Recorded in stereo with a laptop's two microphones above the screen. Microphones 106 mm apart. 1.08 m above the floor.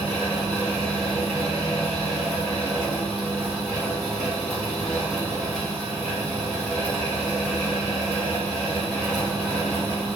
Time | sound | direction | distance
0.0 | a fan | 5° left (ahead or behind) | 1.0 m